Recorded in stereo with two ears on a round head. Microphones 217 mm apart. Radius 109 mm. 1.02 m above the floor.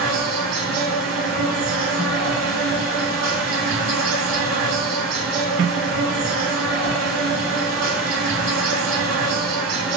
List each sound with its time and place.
0.0 s an insect: 75° right (ahead or behind), 1.7 m